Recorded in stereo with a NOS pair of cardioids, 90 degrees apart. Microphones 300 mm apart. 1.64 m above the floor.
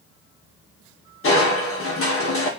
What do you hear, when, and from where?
1.2 s crushing: 50° left, 2.5 m